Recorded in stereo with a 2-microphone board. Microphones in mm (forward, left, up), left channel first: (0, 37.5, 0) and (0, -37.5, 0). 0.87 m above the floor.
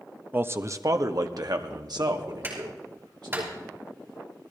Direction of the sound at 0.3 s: 25° right (ahead or behind).